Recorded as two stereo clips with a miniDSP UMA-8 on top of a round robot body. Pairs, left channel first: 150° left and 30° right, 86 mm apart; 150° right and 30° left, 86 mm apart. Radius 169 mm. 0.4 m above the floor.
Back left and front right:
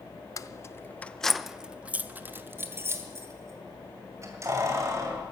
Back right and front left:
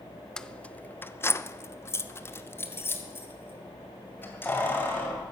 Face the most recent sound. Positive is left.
turn(degrees=-85)